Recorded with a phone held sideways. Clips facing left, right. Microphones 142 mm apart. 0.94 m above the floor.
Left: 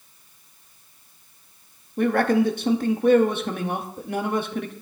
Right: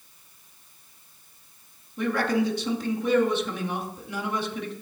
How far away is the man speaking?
About 1.5 m.